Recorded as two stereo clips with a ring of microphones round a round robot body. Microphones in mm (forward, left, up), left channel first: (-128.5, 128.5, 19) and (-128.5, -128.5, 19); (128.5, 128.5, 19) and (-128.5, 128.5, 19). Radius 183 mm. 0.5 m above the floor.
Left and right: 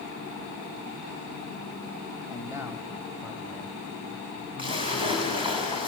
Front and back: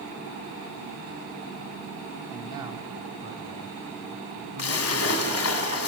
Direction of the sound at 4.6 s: 20° right.